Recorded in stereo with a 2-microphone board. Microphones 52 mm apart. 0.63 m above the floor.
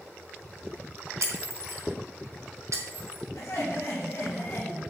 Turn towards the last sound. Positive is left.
turn(degrees=60)  # may be behind; listen again after turning